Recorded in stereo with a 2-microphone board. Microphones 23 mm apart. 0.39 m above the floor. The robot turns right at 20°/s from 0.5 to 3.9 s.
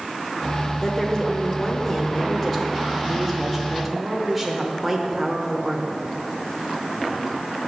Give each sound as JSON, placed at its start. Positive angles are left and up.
{"t": 0.8, "sound": "a woman speaking", "side_deg": 20, "distance_m": 0.8}